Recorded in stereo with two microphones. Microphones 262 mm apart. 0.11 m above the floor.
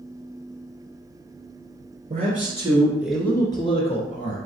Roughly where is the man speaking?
Right.